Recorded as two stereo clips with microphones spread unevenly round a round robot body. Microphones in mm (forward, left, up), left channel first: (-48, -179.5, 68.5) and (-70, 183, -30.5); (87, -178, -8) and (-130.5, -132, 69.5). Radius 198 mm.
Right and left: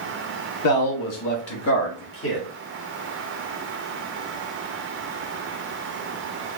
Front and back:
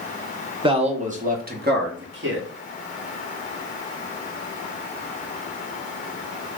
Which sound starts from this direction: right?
A man speaking, at 0.6 s.